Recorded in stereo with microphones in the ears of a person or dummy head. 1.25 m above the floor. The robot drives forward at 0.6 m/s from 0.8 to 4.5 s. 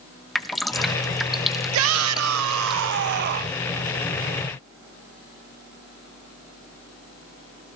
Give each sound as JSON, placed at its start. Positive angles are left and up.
{"t": 0.3, "sound": "dripping", "side_deg": 5, "distance_m": 0.9}
{"t": 1.7, "sound": "a shout", "side_deg": -75, "distance_m": 0.9}